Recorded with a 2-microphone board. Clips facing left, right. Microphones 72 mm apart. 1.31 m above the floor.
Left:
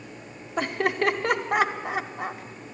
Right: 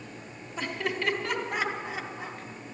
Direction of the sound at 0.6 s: 60° left (ahead or behind).